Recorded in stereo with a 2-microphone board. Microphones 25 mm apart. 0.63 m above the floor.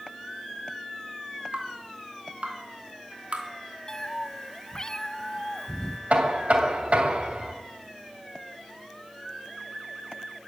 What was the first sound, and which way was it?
Dripping, 70° right (ahead or behind).